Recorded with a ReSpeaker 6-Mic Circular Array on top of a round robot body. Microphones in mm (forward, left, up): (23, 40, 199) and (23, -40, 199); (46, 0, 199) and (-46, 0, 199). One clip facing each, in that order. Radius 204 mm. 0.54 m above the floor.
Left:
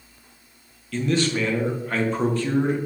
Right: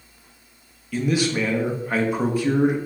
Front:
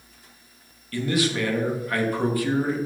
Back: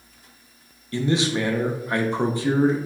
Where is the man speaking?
155° right, 0.9 m.